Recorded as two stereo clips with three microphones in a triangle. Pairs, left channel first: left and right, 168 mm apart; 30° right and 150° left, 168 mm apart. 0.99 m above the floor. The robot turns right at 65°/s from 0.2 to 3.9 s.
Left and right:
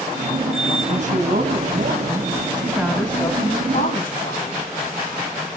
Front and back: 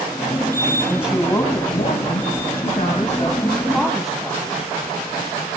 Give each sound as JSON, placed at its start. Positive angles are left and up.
{"t": 0.9, "sound": "a woman speaking", "azimuth_deg": -120, "distance_m": 1.3}